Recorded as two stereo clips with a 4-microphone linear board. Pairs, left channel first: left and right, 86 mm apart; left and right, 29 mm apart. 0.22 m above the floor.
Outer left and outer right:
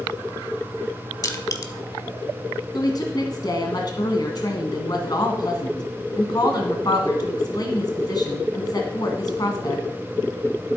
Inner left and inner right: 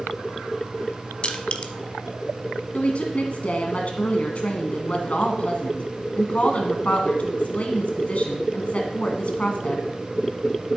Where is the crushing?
40° left (ahead or behind), 1.0 m.